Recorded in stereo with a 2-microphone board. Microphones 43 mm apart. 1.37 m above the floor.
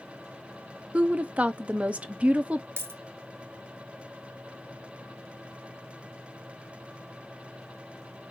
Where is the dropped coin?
50° right (ahead or behind), 0.9 m.